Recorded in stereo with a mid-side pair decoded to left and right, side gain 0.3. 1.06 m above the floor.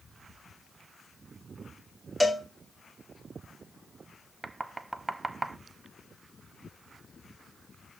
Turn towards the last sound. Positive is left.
turn(degrees=-30)